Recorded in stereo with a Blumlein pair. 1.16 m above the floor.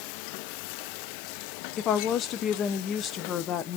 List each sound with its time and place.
1.8 s a woman speaking: 30° left, 0.5 m